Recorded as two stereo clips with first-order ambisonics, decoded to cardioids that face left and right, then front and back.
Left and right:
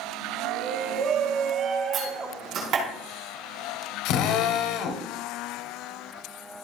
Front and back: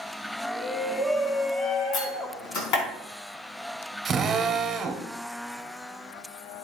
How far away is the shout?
About 1.5 m.